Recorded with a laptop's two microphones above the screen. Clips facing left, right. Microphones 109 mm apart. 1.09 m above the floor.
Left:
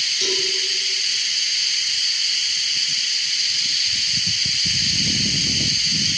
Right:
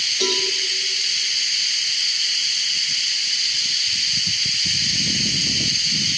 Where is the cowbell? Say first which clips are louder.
Right 3 dB; 60° right (ahead or behind), 7.5 m.